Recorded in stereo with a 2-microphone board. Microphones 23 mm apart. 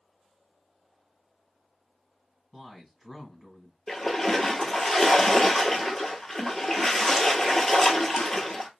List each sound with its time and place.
2.5 s a man speaking: 10° left (ahead or behind), 1.9 m
3.9 s a splash: 20° left (ahead or behind), 0.8 m